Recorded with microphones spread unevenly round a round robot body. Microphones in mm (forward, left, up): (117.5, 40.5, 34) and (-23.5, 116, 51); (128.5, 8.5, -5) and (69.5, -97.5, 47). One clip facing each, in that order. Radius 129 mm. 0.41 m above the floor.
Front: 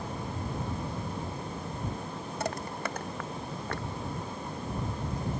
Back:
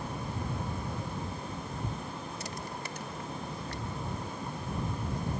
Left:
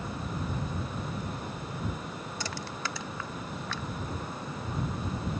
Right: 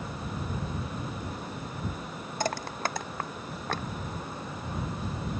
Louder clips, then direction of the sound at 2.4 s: Front 6 dB, right 9 dB; 85° right.